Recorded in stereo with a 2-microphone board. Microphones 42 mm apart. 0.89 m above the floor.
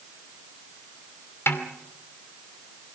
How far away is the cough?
I don't hear a cough.